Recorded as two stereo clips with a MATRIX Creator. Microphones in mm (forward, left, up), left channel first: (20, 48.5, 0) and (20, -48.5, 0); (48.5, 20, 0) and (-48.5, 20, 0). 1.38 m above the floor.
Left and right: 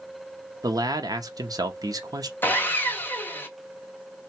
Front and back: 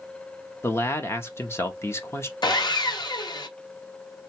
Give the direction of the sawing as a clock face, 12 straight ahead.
11 o'clock.